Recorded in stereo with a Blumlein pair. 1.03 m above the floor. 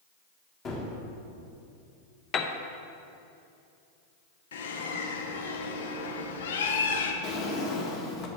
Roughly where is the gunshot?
Ahead left.